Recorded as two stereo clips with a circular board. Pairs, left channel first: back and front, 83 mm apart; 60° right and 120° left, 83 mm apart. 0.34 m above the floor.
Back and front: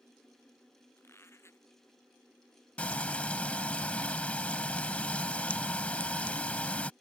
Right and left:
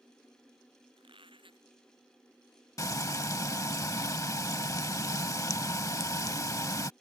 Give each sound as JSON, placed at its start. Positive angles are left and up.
{"t": 1.0, "sound": "a squeak", "azimuth_deg": 120}
{"t": 2.8, "sound": "frying", "azimuth_deg": -105}